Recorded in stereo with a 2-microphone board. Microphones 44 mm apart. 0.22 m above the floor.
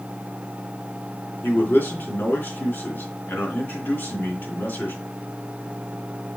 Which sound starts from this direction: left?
A man speaking, at 1.4 s.